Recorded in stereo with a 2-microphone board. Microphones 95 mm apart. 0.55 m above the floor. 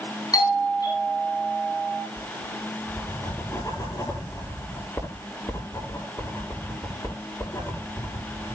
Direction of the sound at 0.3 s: 40° left (ahead or behind).